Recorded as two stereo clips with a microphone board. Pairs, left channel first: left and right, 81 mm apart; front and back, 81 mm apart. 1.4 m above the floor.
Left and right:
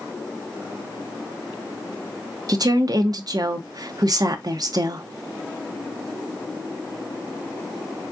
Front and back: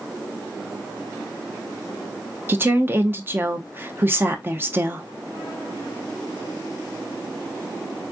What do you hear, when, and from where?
2.5 s a woman speaking: 120° right, 0.7 m